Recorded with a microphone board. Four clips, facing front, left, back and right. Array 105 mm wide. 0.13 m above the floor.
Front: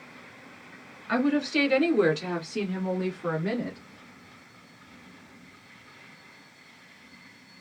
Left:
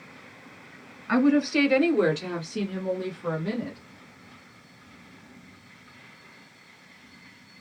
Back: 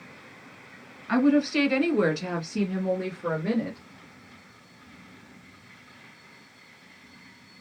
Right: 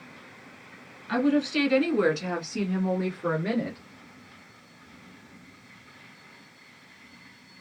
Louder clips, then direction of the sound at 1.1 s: Left 3 dB, back 4 dB; 105° left.